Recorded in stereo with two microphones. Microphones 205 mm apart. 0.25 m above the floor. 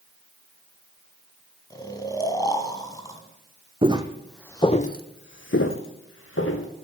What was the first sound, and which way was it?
Snoring, 15° left (ahead or behind).